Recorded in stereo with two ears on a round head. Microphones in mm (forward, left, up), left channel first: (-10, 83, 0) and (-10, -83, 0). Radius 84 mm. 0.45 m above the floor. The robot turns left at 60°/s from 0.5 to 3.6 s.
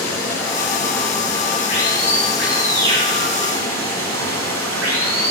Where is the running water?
110° left, 7 m; by 5.3 s 75° right, 7 m.